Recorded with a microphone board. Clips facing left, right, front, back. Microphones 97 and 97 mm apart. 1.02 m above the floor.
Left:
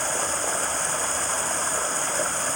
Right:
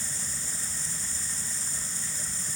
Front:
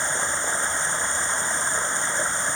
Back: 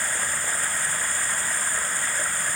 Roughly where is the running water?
Left.